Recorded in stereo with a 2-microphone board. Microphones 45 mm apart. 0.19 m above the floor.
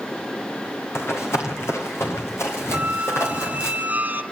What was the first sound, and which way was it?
Running footsteps, 75° left (ahead or behind).